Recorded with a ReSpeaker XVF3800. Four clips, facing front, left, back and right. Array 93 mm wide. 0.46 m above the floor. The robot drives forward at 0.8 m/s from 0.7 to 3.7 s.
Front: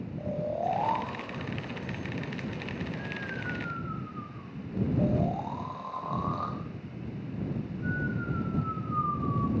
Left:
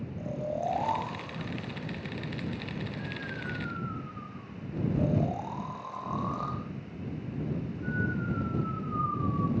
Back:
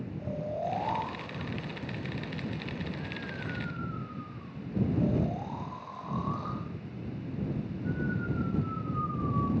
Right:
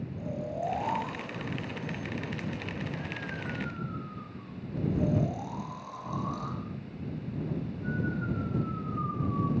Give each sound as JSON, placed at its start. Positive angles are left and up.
{"t": 0.2, "sound": "snoring", "azimuth_deg": 25, "distance_m": 10.0}